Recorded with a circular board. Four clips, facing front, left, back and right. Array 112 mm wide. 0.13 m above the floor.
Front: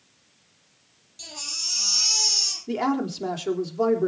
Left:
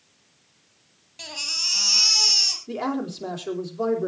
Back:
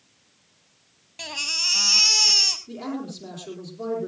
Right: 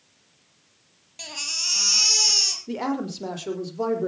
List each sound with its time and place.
1.2 s a baby crying: 170° right, 3 m
2.7 s a woman speaking: 25° right, 4.5 m